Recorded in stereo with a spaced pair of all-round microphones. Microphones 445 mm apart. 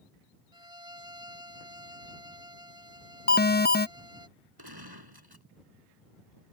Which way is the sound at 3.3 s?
20° left (ahead or behind).